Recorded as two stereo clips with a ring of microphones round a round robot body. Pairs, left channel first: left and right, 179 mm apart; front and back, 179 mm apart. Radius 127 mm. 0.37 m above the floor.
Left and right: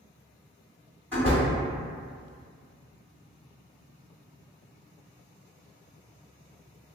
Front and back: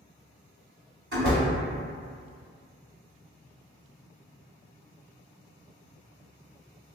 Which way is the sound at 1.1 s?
170° right.